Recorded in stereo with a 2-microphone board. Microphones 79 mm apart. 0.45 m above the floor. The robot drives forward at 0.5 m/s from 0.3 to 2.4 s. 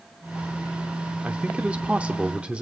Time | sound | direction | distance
1.2 | a man speaking | 15° right (ahead or behind) | 0.8 m